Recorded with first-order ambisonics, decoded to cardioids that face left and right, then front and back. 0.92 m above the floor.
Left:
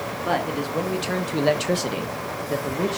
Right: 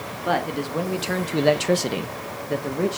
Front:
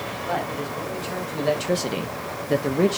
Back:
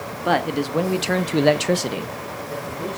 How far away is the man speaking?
About 1.7 m.